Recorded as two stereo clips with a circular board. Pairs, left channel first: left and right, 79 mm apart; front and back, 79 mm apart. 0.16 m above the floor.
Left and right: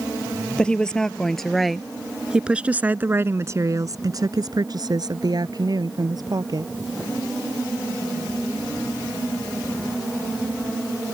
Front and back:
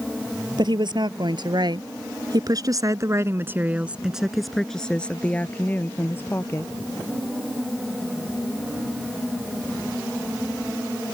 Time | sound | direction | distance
0.6 | a woman speaking | 170° left | ?